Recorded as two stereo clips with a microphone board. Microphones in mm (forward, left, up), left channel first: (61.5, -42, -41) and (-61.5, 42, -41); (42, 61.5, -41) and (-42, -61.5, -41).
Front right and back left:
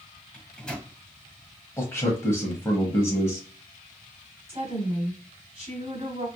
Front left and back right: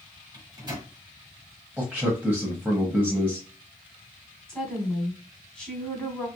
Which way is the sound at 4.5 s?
135° left.